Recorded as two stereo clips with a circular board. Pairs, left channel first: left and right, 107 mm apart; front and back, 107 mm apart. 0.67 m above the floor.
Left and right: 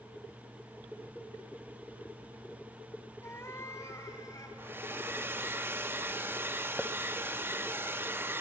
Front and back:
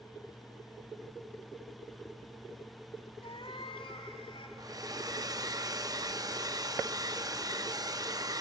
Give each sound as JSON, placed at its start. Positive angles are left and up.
{"t": 3.2, "sound": "a cat meowing", "azimuth_deg": 25, "distance_m": 1.0}
{"t": 4.6, "sound": "a hair dryer", "azimuth_deg": -150, "distance_m": 0.6}